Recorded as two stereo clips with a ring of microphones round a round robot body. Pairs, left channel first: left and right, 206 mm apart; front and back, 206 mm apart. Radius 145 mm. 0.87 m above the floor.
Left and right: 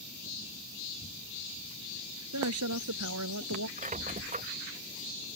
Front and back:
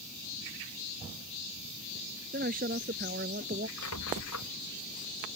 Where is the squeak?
35° right.